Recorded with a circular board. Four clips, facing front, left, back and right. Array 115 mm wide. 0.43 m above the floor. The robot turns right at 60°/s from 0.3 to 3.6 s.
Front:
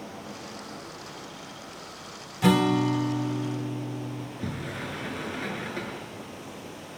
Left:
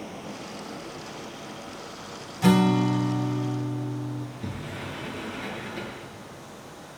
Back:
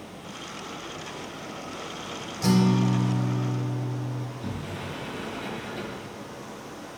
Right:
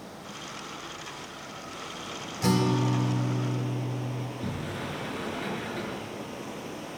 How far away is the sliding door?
About 7 m.